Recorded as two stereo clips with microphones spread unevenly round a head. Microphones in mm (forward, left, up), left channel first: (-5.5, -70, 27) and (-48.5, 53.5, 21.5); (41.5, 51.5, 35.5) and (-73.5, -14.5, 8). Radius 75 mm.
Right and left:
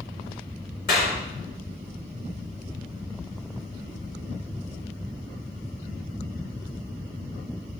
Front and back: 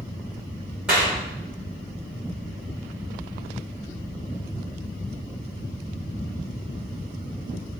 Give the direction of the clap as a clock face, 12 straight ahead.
2 o'clock.